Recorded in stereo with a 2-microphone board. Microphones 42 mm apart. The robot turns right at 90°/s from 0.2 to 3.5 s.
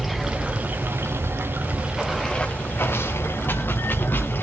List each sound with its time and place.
0.0 s running water: straight behind, 2 m; by 4.4 s 120° left, 2 m